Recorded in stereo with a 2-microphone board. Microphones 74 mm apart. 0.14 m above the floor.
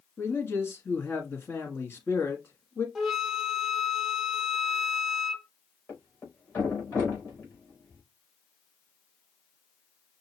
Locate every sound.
0.2 s a man speaking: 35° left (ahead or behind), 1.5 m
3.0 s a flute: centre (ahead or behind), 0.9 m
5.9 s a thud: 35° left (ahead or behind), 3.5 m